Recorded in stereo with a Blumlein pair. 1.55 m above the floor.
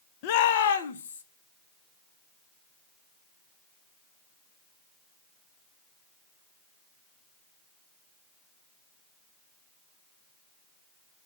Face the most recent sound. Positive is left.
turn(degrees=70)